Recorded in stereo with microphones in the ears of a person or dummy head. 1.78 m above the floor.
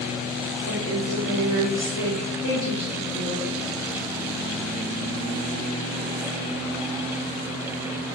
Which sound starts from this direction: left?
A woman speaking, at 0.7 s.